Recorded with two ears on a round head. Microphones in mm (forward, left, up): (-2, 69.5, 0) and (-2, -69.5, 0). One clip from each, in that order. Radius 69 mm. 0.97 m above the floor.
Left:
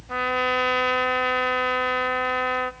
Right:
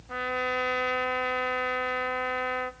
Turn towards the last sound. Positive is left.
turn(degrees=10)  # may be behind; listen again after turning